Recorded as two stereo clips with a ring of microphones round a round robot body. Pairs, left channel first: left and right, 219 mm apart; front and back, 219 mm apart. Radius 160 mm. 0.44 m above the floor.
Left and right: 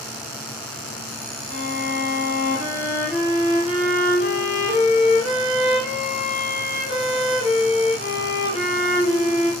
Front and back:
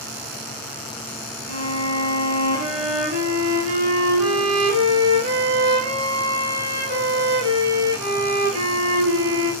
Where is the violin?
165° right, 2 m.